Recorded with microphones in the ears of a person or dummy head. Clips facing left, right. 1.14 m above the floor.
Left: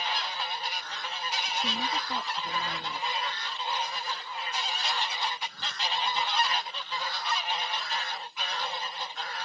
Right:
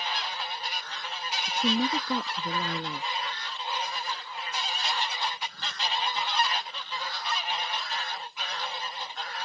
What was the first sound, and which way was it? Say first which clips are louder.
A woman speaking: right 9 dB; 75° right (ahead or behind).